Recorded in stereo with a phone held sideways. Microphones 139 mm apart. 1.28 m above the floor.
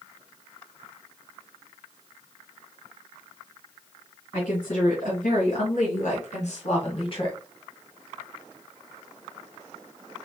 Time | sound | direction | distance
4.3 | a woman speaking | 75° left (ahead or behind) | 3 m